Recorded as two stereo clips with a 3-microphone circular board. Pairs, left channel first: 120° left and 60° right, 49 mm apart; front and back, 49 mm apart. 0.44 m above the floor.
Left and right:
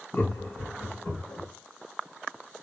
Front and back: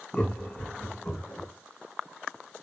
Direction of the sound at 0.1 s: 70° left.